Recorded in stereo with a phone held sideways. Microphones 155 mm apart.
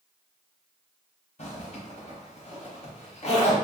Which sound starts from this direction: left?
A zipper, at 1.4 s.